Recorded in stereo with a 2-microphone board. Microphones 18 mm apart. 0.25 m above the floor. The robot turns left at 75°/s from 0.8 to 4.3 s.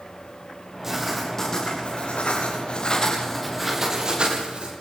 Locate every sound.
0.8 s writing: 160° right, 8.5 m; by 4.7 s 60° right, 8.5 m